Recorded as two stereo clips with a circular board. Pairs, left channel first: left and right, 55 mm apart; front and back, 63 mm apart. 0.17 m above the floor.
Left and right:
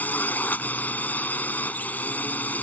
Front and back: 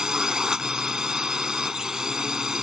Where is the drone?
110° left.